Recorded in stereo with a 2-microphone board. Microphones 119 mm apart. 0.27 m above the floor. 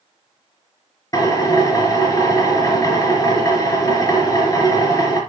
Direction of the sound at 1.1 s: 30° left (ahead or behind).